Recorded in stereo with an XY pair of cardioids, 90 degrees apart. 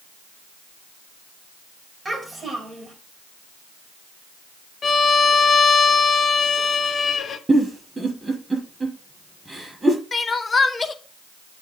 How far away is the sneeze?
I don't hear a sneeze.